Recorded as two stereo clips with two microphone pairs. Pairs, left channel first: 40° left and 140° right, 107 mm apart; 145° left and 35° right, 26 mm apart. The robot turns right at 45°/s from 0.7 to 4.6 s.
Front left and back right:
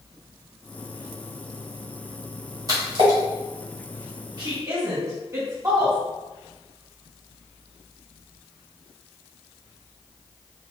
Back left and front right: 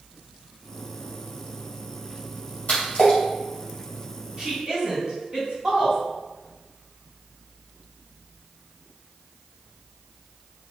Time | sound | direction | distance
2.7 | a splash | 165° left | 1.9 m
4.4 | a woman speaking | 100° right | 1.9 m